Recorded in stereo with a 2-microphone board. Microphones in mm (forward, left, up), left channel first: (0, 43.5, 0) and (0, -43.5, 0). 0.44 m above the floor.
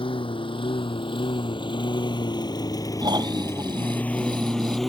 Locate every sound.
0.0 s a lawn mower: 85° left; by 4.9 s centre (ahead or behind)
3.0 s snoring: 55° right (ahead or behind)